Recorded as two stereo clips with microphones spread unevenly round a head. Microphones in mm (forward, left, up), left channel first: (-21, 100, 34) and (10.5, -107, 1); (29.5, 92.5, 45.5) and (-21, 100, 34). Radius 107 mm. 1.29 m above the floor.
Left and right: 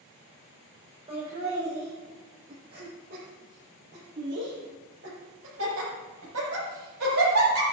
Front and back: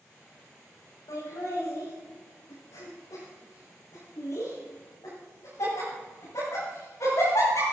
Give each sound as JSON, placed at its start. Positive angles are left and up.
{"t": 1.1, "sound": "laughter", "azimuth_deg": -20, "distance_m": 5.0}